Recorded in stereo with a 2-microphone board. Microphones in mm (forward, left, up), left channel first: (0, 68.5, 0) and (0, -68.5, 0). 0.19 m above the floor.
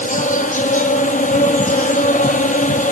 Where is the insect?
75° left (ahead or behind), 1.0 m.